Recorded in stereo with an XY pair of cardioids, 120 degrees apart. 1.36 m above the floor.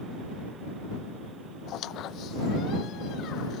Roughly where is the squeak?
Ahead left.